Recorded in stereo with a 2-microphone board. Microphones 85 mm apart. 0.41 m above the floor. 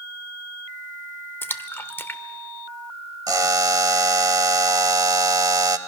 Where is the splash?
25° left (ahead or behind), 0.7 m.